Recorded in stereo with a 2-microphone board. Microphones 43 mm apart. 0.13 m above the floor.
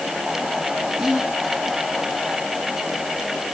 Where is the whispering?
15° right (ahead or behind), 6 m.